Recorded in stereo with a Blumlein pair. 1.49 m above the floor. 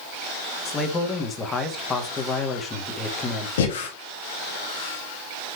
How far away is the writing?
No writing in this recording.